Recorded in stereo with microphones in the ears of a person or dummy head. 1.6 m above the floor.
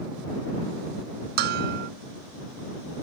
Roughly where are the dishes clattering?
Right.